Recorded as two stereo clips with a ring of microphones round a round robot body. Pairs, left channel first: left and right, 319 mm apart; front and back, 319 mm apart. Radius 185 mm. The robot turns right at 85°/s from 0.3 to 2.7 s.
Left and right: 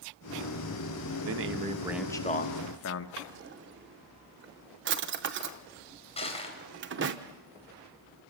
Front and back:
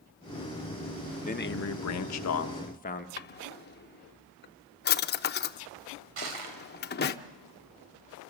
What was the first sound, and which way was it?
A man speaking, 65° right.